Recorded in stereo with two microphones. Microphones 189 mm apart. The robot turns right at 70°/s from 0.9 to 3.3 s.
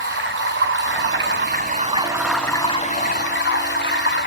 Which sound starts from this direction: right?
Running water, at 0.0 s.